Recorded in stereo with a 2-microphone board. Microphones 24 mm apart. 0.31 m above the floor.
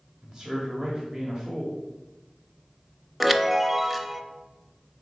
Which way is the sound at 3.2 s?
10° right (ahead or behind).